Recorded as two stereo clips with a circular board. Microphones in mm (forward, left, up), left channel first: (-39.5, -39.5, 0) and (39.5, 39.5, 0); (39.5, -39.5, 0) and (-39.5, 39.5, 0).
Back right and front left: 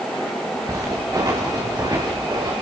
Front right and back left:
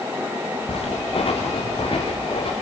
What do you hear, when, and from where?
0.7 s footsteps: 15° right, 8 m; by 2.5 s 5° right, 9 m